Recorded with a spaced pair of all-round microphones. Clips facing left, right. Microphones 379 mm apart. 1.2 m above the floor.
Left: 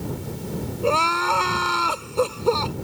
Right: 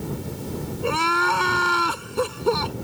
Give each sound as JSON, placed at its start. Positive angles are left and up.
{"t": 0.8, "sound": "crying", "side_deg": -25}